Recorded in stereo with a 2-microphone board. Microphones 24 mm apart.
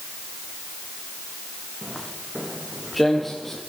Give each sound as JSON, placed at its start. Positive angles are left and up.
{"t": 1.8, "sound": "footsteps", "side_deg": 5, "distance_m": 8.0}